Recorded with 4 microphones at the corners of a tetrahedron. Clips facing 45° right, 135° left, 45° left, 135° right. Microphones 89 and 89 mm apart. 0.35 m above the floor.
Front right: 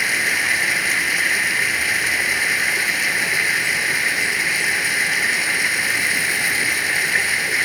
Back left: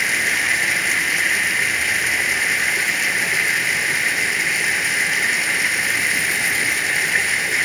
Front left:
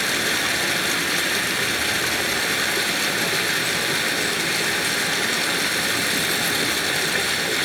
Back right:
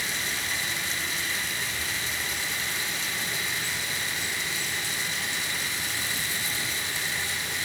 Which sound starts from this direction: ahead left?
Running water, at 0.0 s.